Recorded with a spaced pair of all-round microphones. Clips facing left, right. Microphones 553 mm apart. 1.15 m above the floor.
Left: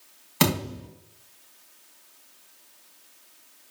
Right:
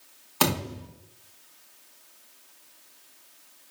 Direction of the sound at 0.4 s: 45° left (ahead or behind).